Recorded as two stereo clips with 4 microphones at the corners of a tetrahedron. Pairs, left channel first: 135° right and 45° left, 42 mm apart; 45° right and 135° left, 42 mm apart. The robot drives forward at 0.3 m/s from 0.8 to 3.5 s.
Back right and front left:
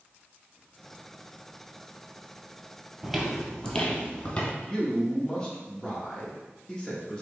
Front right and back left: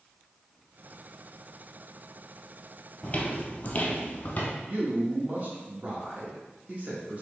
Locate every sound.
3.0 s footsteps: 25° right, 0.8 m; by 4.5 s 85° right, 1.3 m
4.6 s a man speaking: 160° left, 0.7 m